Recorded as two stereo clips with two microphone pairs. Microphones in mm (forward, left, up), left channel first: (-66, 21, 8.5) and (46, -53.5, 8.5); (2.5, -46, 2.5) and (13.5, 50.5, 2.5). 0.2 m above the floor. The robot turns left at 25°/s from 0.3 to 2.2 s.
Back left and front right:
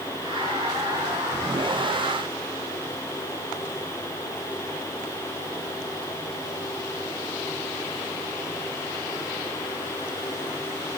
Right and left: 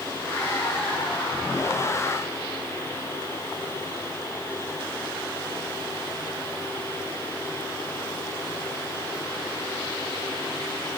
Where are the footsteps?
No footsteps in this recording.